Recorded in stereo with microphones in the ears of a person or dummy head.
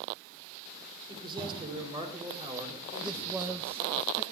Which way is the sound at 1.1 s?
30° right (ahead or behind).